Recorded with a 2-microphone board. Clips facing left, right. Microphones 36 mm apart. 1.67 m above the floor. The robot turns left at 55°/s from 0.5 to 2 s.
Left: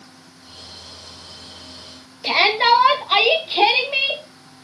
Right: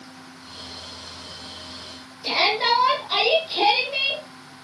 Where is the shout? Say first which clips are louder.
Left 5 dB; 40° left (ahead or behind), 3.5 m.